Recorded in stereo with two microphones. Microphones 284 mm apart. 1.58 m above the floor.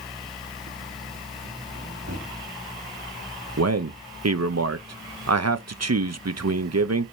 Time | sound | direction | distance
2.1 | a microwave | 65° right (ahead or behind) | 3 m
3.6 | a man speaking | 60° right (ahead or behind) | 0.6 m